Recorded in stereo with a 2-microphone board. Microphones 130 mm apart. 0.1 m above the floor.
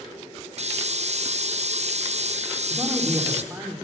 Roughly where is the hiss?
Right.